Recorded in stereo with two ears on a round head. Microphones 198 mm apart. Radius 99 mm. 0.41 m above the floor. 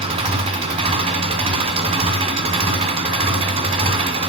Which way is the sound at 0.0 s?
25° right (ahead or behind).